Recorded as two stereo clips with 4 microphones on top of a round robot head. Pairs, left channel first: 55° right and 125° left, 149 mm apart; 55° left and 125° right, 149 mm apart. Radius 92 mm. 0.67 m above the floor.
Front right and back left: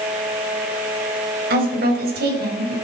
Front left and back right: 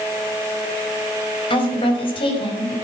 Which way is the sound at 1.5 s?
110° left.